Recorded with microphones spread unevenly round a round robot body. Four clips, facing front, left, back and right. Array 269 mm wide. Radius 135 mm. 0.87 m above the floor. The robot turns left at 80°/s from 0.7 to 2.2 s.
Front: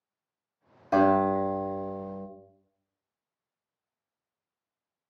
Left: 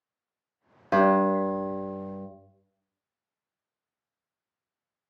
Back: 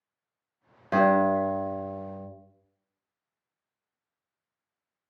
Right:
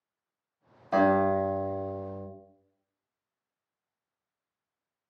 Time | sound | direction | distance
0.9 | a guitar | 100° left | 1.3 m